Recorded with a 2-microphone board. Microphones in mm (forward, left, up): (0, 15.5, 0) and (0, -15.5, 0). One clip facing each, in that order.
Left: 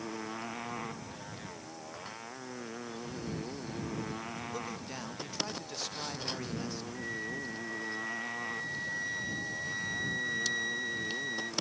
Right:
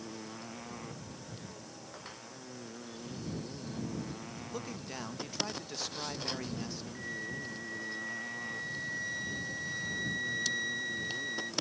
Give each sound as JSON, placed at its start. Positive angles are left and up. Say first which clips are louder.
{"t": 0.0, "sound": "a motorcycle", "louder": "left 5 dB", "side_deg": 30}
{"t": 4.5, "sound": "a man speaking", "louder": "left 2 dB", "side_deg": -5}
{"t": 7.0, "sound": "a flute", "louder": "left 1 dB", "side_deg": 0}